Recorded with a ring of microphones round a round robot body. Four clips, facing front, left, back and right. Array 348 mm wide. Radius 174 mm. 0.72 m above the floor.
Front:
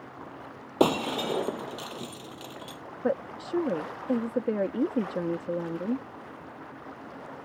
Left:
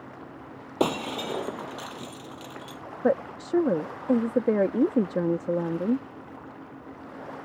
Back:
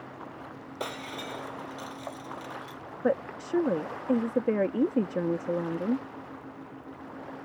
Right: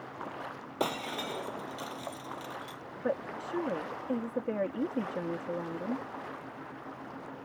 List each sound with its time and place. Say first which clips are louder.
0.8 s breaking glass: left 7 dB, front 13 dB; 30° left
3.0 s a woman speaking: left 8 dB, back 1 dB; 100° left